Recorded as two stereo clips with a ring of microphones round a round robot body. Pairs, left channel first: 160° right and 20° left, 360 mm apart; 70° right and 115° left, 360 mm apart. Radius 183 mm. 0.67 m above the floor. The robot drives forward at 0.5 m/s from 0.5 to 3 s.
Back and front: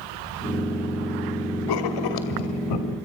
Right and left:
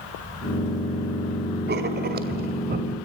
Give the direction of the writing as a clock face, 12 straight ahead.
6 o'clock.